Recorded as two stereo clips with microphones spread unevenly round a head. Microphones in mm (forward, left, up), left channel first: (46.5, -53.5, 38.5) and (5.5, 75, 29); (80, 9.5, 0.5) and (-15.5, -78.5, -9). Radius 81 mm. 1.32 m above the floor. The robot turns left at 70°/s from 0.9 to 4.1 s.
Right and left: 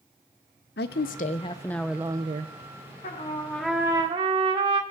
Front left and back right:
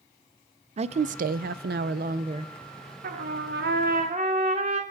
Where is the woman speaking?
95° right, 0.5 m; by 2.5 s 150° left, 0.5 m.